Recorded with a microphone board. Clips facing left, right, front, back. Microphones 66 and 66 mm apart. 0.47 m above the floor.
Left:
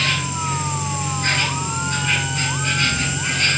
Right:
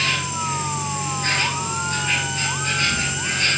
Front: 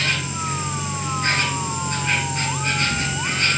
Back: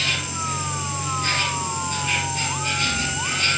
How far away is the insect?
About 6.5 m.